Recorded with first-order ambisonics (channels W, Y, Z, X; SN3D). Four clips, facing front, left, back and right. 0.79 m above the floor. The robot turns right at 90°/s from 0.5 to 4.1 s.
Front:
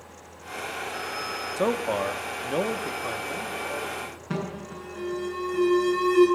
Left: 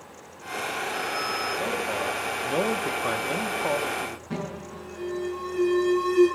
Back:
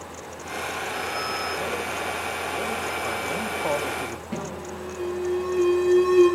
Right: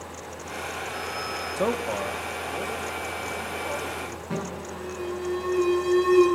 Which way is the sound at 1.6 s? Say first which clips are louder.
Right 1 dB, front 3 dB; 45° right.